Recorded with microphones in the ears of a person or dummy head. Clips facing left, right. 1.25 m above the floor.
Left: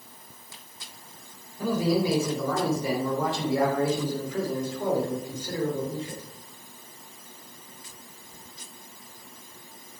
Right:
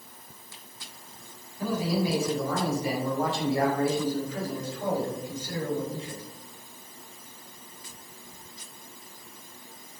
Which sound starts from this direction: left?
A man speaking, at 1.6 s.